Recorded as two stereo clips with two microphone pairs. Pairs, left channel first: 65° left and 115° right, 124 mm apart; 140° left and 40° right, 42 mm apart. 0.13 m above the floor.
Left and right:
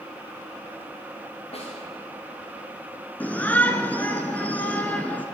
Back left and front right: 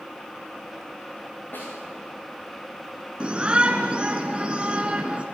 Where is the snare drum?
105° left, 7 m.